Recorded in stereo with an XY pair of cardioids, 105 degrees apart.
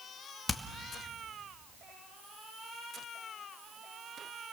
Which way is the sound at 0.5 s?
15° left.